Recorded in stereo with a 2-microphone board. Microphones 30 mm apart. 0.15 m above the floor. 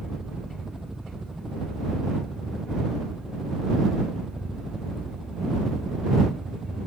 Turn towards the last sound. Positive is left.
turn(degrees=-15)  # may be behind; listen again after turning